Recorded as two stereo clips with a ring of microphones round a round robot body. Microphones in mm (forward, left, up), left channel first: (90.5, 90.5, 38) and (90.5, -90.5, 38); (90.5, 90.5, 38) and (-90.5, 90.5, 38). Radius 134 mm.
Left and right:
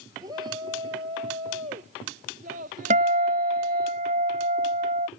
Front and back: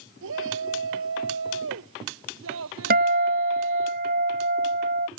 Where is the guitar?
140° right.